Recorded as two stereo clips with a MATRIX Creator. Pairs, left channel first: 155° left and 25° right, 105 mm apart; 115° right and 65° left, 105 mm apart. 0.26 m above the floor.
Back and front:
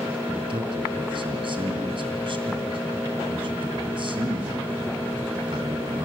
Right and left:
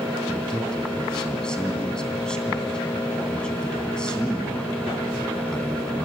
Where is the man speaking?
30° right, 2.5 m.